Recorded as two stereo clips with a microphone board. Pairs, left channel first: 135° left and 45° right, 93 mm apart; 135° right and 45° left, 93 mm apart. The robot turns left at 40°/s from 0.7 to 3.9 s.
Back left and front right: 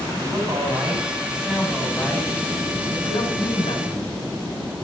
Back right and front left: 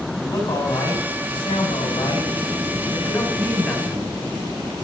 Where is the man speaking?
100° right, 7 m; by 4.1 s 135° left, 7 m.